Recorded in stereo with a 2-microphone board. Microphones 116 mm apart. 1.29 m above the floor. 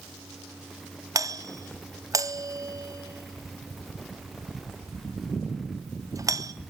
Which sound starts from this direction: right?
A doorbell, at 1.1 s.